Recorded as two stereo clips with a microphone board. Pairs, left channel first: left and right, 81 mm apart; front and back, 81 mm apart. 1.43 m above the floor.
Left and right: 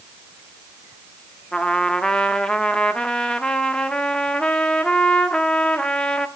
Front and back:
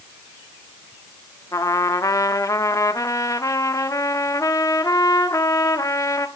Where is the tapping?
I don't hear tapping.